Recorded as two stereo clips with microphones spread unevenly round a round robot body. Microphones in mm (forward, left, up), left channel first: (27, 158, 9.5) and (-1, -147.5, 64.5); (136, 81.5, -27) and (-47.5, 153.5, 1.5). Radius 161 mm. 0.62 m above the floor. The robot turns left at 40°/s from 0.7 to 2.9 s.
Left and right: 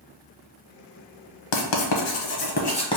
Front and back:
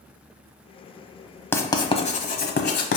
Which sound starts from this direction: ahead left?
Writing, at 1.5 s.